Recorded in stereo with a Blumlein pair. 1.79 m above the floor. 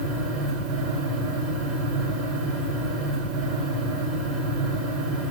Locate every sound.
0.0 s a fan: 40° right, 3.5 m